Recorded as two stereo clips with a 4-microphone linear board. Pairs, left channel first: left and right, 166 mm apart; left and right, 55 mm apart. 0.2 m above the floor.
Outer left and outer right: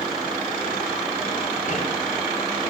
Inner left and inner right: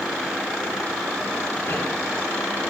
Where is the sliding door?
50° left (ahead or behind), 3 m.